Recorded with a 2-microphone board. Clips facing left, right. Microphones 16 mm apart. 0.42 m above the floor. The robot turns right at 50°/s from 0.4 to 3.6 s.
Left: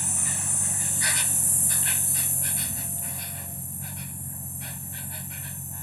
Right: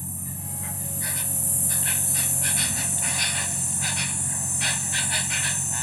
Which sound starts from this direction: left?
An insect, at 0.0 s.